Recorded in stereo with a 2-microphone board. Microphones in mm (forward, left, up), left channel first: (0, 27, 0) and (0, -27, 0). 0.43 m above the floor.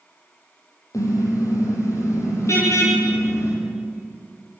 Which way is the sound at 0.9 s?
75° left (ahead or behind).